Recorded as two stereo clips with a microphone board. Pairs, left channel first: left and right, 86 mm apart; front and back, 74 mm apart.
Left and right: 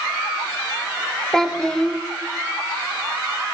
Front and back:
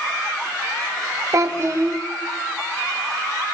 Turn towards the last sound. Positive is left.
turn(degrees=170)